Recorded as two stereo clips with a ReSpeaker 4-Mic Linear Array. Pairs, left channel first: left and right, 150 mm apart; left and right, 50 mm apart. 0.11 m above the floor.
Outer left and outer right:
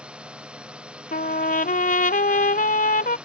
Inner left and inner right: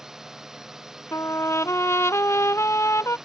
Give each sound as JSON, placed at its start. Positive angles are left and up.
{"t": 0.0, "sound": "a drone", "side_deg": -5}
{"t": 1.1, "sound": "a trumpet", "side_deg": 70}